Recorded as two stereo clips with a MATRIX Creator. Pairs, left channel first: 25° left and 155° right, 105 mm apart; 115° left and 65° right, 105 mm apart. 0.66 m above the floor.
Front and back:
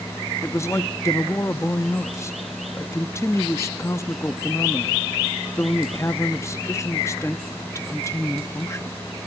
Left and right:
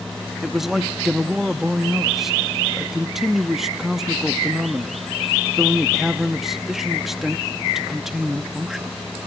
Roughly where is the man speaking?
Ahead.